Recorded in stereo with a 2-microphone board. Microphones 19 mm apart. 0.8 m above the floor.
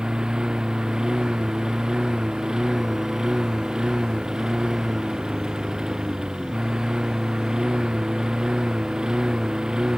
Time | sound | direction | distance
0.0 | a lawn mower | 40° right (ahead or behind) | ?